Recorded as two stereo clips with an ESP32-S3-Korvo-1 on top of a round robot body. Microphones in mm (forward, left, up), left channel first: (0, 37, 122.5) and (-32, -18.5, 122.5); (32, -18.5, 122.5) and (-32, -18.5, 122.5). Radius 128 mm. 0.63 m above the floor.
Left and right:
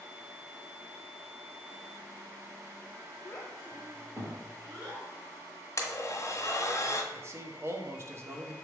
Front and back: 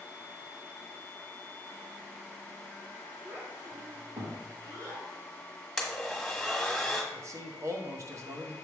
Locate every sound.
3.2 s a child speaking: 115° left, 0.8 m; by 5.0 s 165° right, 2.5 m
5.8 s a blender: 85° left, 1.6 m
7.1 s a man speaking: 155° right, 1.3 m